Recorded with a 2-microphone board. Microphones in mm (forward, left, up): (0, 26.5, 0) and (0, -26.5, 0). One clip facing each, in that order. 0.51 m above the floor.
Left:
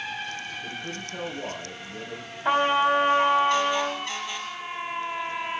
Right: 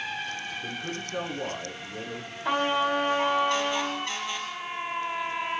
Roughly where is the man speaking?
Right.